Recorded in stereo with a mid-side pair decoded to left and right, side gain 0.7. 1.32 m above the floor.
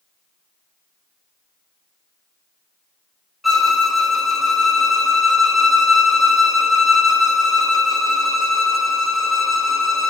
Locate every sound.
3.4 s a violin: 5° left, 1.3 m